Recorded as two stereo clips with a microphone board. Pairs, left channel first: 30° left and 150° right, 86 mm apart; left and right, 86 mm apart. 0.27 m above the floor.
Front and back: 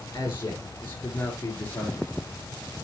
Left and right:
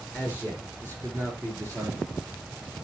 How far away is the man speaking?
About 4 m.